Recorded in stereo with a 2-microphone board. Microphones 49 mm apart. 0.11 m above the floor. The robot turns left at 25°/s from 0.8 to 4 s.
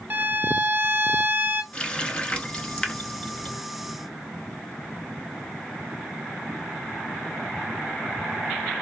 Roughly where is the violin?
Right.